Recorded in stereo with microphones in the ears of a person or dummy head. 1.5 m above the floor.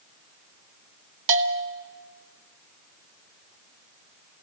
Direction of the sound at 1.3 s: 70° right (ahead or behind).